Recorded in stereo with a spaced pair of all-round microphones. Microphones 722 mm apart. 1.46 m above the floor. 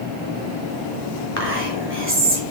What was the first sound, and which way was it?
Whispering, 20° right (ahead or behind).